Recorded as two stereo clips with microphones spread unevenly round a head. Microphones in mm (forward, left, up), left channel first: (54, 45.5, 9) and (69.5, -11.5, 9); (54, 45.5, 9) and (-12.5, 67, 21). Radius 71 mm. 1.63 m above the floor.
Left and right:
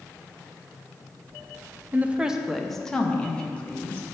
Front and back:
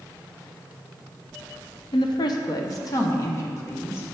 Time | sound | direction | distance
1.9 | a woman speaking | 20° right | 0.5 m